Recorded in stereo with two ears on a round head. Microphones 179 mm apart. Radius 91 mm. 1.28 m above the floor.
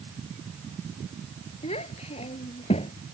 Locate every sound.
1.6 s a child speaking: 35° left (ahead or behind)